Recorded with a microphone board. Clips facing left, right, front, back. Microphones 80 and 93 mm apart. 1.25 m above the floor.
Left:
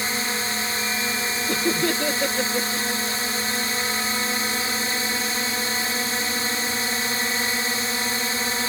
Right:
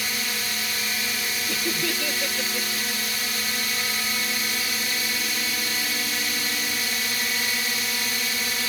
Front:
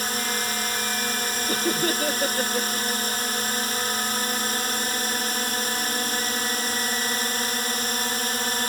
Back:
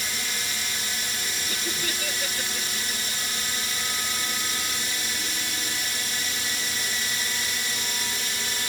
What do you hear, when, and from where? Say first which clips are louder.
0.0 s a drone: left 4 dB, front 6 dB; 35° left
1.5 s laughter: left 6 dB, front 10 dB; 45° left